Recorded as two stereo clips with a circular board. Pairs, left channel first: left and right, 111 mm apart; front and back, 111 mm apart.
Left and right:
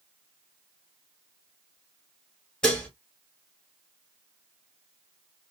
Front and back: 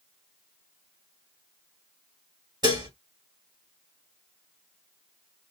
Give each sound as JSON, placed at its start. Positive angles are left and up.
{"t": 2.6, "sound": "dishes clattering", "azimuth_deg": 165, "distance_m": 1.3}